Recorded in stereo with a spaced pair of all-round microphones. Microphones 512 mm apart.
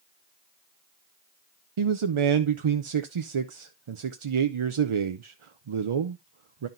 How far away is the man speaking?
About 0.6 m.